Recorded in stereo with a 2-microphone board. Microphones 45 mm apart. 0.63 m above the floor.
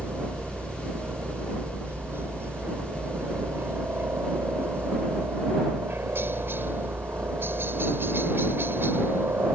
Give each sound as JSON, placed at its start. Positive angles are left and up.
{"t": 0.0, "sound": "a helicopter", "side_deg": -55}